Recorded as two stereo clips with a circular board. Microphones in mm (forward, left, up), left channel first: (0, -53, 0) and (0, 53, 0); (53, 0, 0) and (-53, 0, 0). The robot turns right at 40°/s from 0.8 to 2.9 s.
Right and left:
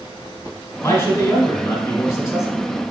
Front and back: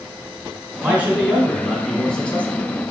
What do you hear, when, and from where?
0.8 s a man speaking: 125° right, 1.1 m; by 2.5 s 60° right, 1.1 m